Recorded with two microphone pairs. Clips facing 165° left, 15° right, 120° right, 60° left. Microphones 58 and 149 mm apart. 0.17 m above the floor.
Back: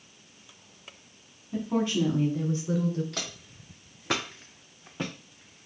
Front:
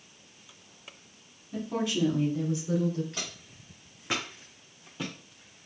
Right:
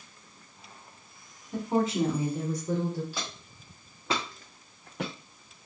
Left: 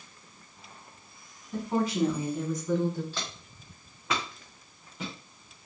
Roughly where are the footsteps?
Behind.